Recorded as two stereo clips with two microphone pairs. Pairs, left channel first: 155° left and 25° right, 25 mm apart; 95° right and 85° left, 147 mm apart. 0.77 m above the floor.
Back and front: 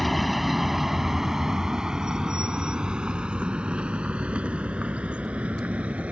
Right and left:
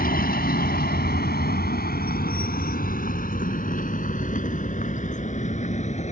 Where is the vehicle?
115° right; by 6.1 s 55° right.